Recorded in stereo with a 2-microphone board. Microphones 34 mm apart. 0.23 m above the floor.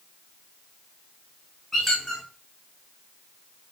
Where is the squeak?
10° left (ahead or behind), 2.5 m.